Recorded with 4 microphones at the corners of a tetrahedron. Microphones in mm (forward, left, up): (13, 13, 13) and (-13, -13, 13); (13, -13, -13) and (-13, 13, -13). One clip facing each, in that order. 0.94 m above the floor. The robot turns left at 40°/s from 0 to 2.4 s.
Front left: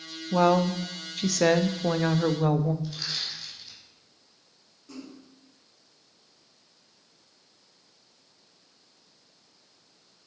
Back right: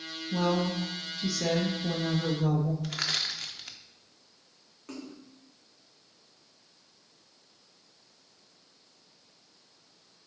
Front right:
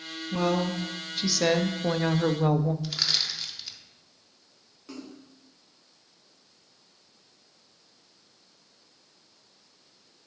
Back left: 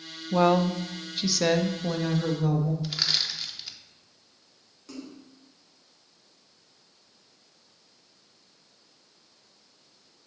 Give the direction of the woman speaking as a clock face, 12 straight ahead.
9 o'clock.